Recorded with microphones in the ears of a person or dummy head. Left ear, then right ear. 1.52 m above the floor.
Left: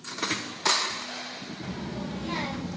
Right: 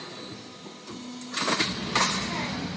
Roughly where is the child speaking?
Left.